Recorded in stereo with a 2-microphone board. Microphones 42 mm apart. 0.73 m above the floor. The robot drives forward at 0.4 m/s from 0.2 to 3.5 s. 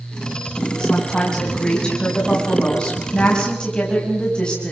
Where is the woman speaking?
20° left (ahead or behind), 7.5 m.